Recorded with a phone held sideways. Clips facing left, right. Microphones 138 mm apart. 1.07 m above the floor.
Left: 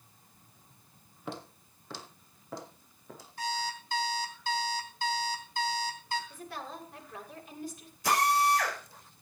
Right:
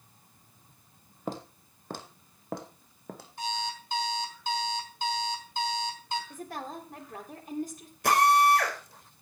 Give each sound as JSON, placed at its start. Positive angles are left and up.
{"t": 1.3, "sound": "footsteps", "side_deg": -40, "distance_m": 2.0}
{"t": 3.4, "sound": "an alarm clock", "side_deg": -25, "distance_m": 3.5}
{"t": 6.3, "sound": "a woman speaking", "side_deg": -45, "distance_m": 3.0}
{"t": 8.0, "sound": "a drill", "side_deg": -65, "distance_m": 5.0}